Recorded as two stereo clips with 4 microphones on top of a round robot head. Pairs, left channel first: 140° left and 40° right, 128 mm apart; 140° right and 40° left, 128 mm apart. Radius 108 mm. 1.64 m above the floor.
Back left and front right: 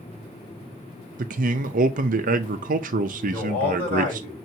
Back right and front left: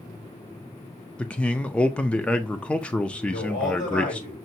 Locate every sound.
1.2 s a man speaking: 55° right, 0.5 m
3.2 s a man speaking: 145° right, 4 m